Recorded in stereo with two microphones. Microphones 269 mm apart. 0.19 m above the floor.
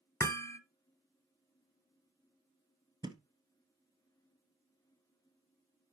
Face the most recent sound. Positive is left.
turn(degrees=-15)  # may be behind; listen again after turning